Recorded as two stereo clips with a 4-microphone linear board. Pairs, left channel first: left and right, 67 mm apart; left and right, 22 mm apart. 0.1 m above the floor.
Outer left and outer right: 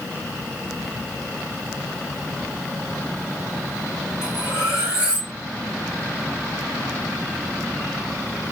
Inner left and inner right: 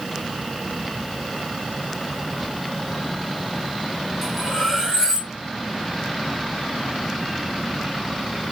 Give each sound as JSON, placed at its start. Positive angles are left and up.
{"t": 4.2, "sound": "cutlery clinking", "side_deg": -15, "distance_m": 3.0}